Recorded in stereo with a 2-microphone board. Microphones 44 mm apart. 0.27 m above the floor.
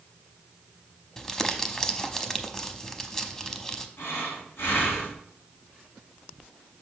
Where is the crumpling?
15° left (ahead or behind), 0.6 m.